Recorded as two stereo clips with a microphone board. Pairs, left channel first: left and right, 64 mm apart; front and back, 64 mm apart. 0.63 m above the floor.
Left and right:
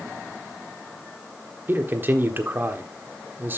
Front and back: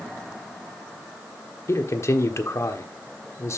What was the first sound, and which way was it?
A man speaking, 35° right.